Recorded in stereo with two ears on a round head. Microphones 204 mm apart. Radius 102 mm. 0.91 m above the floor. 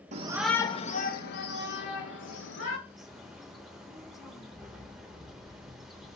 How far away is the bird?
About 0.9 m.